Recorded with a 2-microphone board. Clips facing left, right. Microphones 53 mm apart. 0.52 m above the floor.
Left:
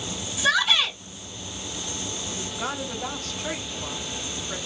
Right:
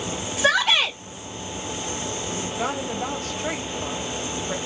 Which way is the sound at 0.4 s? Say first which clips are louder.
Right 2 dB; 55° right (ahead or behind).